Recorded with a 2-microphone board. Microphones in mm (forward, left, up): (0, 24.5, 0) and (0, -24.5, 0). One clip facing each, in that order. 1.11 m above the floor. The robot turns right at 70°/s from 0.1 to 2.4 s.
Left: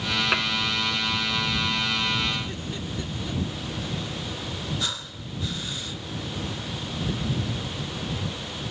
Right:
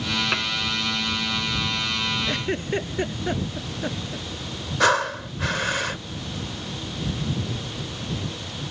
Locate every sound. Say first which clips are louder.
0.3 s dishes clattering: left 3 dB; 5° left (ahead or behind); by 0.5 s 20° left (ahead or behind)
2.3 s a giggle: right 5 dB; 65° right (ahead or behind); by 4.3 s 55° right (ahead or behind)
4.8 s breathing: right 13 dB; 75° right (ahead or behind)